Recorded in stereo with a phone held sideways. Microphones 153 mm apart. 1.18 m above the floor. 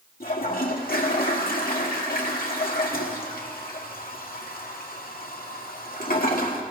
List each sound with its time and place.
0.2 s a toilet flushing: 70° left (ahead or behind), 1.7 m